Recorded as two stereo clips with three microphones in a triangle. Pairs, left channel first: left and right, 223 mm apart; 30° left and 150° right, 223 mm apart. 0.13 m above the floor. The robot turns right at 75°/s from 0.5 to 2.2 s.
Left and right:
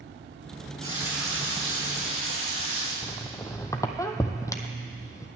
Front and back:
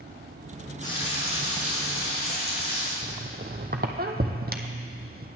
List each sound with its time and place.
0.8 s frying: 30° right, 3.5 m; by 2.9 s 75° left, 3.5 m
3.0 s a squeak: 165° left, 0.8 m